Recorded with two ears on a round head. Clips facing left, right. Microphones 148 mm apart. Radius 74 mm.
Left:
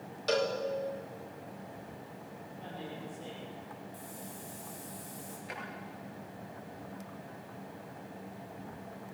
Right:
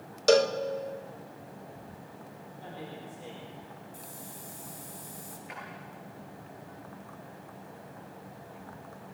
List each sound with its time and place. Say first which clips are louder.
0.3 s a cowbell: right 8 dB; 55° right (ahead or behind), 1.3 m
2.6 s a man speaking: even; 10° right (ahead or behind), 6 m
3.9 s a hiss: left 1 dB; 15° right (ahead or behind), 5 m
5.5 s a drawer: left 1 dB; 50° left (ahead or behind), 9 m